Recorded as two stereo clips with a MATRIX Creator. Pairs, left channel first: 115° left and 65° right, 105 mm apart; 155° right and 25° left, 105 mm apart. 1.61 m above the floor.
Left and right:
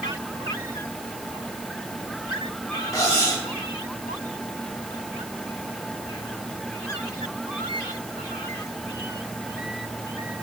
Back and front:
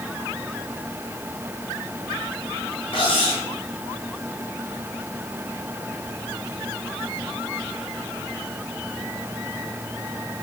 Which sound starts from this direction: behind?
Cutlery clinking, at 2.9 s.